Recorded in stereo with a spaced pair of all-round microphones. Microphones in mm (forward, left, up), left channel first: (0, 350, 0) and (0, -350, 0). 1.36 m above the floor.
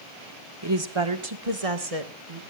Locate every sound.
0.6 s a woman speaking: 35° right (ahead or behind), 1.8 m; by 2.4 s 65° right (ahead or behind), 2.5 m